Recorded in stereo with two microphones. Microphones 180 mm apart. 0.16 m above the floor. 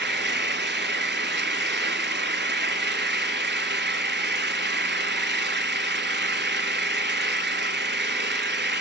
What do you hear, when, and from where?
0.0 s an engine running: 75° right (ahead or behind), 0.8 m